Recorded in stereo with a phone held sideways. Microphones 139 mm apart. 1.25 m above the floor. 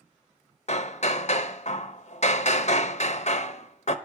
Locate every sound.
0.7 s hammering: 55° left (ahead or behind), 0.6 m